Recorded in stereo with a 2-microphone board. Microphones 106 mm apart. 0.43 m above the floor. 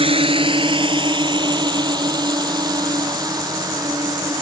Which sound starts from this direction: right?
A drone, at 0.0 s.